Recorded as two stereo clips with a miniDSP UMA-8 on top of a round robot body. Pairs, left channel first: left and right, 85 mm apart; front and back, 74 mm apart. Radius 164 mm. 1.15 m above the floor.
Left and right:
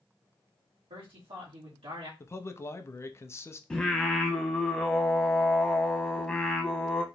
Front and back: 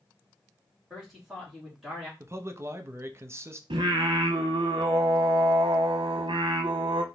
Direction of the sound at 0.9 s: 90° right.